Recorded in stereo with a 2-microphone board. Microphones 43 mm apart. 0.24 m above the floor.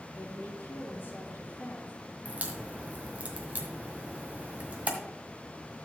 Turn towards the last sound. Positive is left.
turn(degrees=-30)  # may be behind; listen again after turning